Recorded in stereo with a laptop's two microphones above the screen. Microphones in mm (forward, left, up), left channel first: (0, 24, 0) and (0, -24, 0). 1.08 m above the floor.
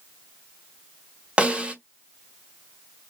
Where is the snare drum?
25° right (ahead or behind), 0.9 m.